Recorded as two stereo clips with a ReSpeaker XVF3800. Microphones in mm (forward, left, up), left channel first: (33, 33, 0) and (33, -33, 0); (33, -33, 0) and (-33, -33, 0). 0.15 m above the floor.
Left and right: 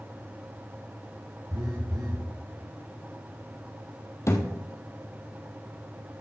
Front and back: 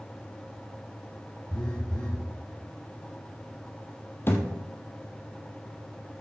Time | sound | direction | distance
1.5 | a phone buzzing | 75° right | 3 m
4.3 | a thud | 50° left | 2 m